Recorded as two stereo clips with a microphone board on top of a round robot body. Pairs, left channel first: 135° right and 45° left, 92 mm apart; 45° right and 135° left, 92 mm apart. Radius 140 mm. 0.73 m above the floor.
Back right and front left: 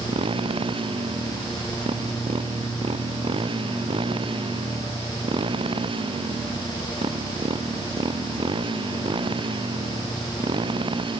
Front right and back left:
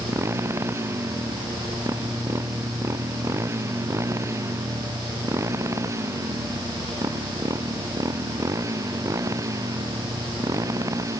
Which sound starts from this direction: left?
A motorcycle, at 0.0 s.